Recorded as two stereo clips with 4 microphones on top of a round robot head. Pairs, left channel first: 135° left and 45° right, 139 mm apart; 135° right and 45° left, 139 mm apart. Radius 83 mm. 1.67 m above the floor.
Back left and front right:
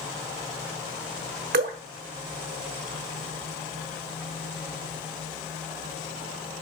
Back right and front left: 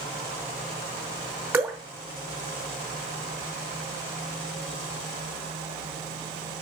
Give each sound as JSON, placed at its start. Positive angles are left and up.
{"t": 1.5, "sound": "dripping", "azimuth_deg": -30, "distance_m": 1.0}